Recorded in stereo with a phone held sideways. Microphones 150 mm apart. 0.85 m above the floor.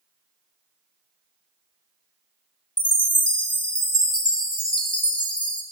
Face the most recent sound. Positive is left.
turn(degrees=35)  # may be behind; listen again after turning